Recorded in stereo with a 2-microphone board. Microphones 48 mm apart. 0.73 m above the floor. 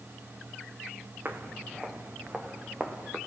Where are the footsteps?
45° right (ahead or behind), 2 m; by 3.2 s 20° right (ahead or behind), 3.5 m.